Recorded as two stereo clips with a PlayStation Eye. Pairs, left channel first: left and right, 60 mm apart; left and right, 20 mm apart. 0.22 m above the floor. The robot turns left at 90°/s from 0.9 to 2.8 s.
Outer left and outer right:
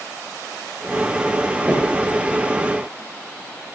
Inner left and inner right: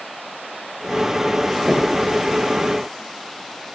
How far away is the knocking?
About 4.5 m.